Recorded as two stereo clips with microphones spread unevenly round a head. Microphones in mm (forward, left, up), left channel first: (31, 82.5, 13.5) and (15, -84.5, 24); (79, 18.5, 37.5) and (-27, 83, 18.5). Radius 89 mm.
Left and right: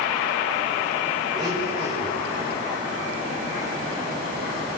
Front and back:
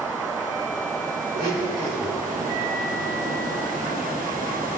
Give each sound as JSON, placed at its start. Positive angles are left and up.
{"t": 1.3, "sound": "a blender", "azimuth_deg": -165, "distance_m": 6.5}